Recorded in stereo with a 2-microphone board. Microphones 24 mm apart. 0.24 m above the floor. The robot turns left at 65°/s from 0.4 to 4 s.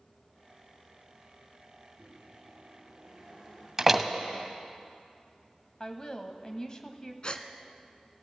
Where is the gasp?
40° left (ahead or behind), 0.8 m.